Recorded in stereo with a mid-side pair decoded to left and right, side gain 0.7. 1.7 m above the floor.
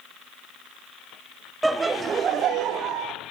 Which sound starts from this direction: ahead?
Laughter, at 1.6 s.